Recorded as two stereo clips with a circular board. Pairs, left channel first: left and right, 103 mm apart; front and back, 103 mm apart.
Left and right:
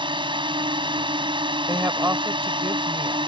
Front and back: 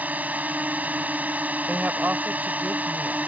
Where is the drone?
110° right.